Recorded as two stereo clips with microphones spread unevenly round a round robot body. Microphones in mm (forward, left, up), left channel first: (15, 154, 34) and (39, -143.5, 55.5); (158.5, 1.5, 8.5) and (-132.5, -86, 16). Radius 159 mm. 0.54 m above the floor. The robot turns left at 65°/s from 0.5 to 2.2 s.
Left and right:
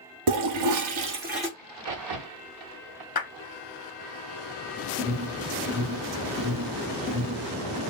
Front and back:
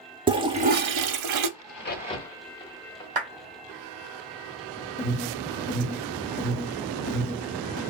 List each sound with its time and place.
0.3 s a toilet flushing: 90° right, 0.5 m; by 1.5 s 155° right, 0.5 m
1.6 s a crack: 25° right, 1.0 m; by 3.0 s 60° right, 1.0 m
3.1 s a clap: 140° left, 1.0 m
5.0 s an alarm: 5° right, 2 m